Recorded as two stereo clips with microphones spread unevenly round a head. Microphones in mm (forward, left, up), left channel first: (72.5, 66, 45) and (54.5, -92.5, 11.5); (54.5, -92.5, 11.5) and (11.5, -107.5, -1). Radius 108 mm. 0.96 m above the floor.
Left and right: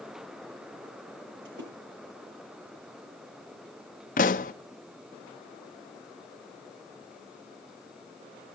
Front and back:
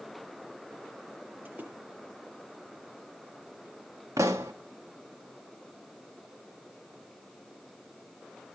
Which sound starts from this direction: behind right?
A splash, at 1.4 s.